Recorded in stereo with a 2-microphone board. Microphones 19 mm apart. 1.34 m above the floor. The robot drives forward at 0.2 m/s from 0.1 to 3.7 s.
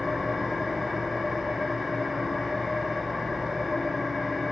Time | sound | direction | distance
0.0 | an engine running | 15° left (ahead or behind) | 2 m